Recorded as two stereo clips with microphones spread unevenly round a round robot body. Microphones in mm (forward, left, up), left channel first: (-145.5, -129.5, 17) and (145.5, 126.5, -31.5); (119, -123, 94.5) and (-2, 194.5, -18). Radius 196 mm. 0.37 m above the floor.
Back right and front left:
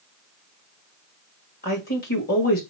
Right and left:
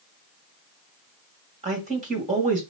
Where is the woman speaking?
155° left, 1.9 m.